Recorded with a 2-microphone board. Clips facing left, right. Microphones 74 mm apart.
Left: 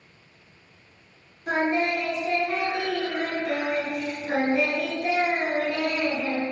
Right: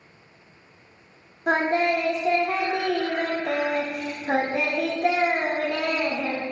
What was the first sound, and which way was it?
Singing, 55° right (ahead or behind).